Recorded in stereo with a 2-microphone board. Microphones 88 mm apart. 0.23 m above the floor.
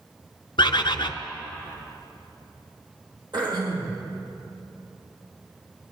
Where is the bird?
70° left (ahead or behind), 0.7 m.